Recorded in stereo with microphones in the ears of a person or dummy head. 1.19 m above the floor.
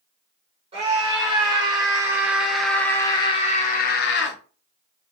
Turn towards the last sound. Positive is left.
turn(degrees=55)  # may be behind; listen again after turning